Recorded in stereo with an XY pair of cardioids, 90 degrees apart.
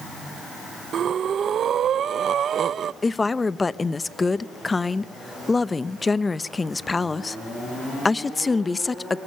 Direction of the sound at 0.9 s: 65° right.